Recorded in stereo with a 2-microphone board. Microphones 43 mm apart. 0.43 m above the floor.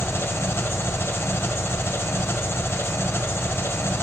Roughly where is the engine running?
Left.